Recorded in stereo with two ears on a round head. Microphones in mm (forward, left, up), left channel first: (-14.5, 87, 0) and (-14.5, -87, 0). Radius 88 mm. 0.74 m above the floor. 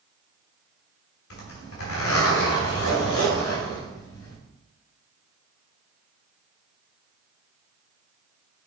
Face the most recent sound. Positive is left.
turn(degrees=85)